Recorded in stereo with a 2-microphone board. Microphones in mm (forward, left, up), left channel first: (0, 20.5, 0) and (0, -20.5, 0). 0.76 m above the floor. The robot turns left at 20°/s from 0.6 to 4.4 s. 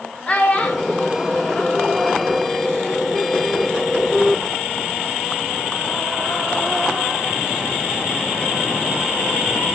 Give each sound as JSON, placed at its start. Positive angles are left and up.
{"t": 0.3, "sound": "a child speaking", "side_deg": 35, "distance_m": 0.7}